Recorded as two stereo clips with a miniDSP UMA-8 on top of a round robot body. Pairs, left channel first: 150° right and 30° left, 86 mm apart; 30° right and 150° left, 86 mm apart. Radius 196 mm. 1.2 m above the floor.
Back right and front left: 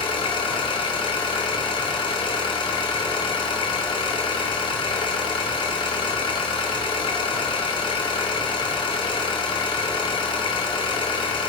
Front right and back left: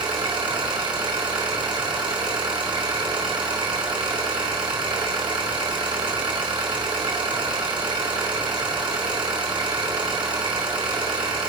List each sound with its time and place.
0.0 s an engine running: straight behind, 1.9 m